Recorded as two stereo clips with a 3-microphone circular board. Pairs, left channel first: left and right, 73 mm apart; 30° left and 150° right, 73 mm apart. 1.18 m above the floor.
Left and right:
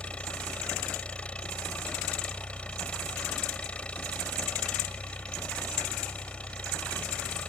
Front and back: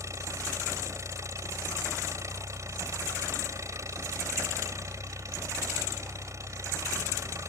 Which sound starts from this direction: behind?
An engine running, at 0.0 s.